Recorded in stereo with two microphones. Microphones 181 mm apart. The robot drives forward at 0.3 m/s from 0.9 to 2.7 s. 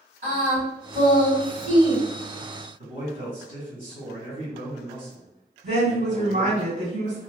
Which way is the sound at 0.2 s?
45° right (ahead or behind).